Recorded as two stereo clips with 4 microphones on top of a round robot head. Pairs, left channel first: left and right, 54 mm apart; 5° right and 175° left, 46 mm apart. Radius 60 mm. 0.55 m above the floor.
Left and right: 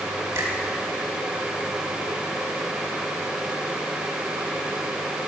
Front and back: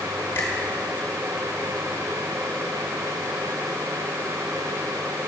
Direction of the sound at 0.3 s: 50° right.